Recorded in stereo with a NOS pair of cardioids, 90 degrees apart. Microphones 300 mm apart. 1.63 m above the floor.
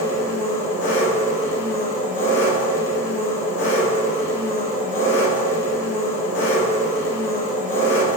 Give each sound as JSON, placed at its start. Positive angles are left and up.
{"t": 0.0, "sound": "an engine running", "azimuth_deg": 40, "distance_m": 0.9}